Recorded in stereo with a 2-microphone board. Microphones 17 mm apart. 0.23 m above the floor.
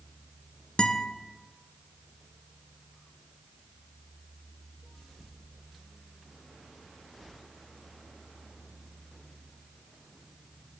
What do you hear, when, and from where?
0.8 s a guitar: 55° left (ahead or behind), 0.8 m